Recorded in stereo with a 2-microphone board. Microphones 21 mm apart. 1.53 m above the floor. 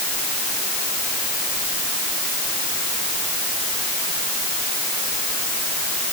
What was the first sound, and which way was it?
Only background noise.